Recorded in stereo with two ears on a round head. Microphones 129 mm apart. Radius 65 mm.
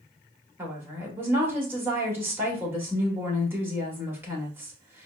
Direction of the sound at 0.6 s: 15° right (ahead or behind).